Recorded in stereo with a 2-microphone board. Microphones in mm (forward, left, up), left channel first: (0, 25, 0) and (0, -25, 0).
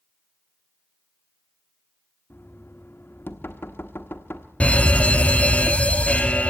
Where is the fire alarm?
25° left (ahead or behind), 0.9 m.